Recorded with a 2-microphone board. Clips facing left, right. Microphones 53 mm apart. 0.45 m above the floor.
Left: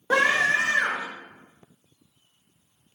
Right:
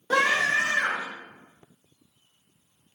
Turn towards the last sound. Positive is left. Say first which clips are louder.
# left 2 dB
turn(degrees=30)  # may be behind; listen again after turning